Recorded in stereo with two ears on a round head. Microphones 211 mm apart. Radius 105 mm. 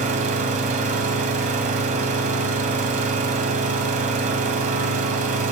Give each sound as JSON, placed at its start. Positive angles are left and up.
{"t": 0.0, "sound": "an engine running", "side_deg": -30, "distance_m": 2.5}